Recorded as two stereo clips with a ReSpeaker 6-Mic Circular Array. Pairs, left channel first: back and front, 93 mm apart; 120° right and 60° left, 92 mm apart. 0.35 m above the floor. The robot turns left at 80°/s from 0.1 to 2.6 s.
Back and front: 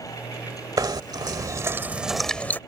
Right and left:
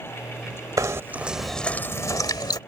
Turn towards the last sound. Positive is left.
turn(degrees=-120)